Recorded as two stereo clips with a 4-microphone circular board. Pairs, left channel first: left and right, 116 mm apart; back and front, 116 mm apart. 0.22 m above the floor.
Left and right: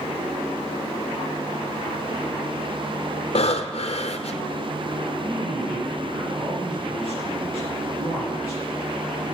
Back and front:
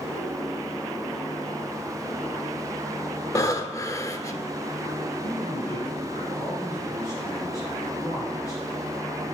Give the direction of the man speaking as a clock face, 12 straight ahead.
4 o'clock.